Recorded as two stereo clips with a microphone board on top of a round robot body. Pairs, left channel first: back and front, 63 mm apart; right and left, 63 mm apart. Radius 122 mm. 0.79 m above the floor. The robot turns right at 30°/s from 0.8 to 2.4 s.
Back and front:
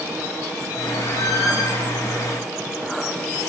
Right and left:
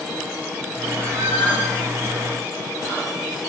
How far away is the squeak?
About 1.6 m.